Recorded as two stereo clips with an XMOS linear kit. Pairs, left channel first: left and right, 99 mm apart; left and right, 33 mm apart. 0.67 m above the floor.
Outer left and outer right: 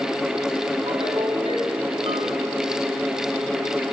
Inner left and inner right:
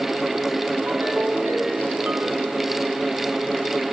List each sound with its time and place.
0.9 s a ringtone: 65° right (ahead or behind), 5 m